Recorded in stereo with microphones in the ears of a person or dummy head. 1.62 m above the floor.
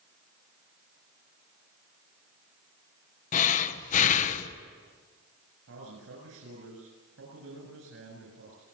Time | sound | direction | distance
3.3 | breathing | 40° left (ahead or behind) | 1.3 m
5.7 | a man speaking | 75° right (ahead or behind) | 8 m